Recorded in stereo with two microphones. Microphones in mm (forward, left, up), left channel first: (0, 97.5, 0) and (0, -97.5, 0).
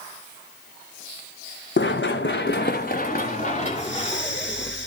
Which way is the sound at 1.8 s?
75° left (ahead or behind).